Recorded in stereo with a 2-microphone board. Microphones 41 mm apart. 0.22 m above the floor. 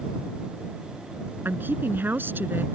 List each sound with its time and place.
1.4 s a woman speaking: 55° right (ahead or behind)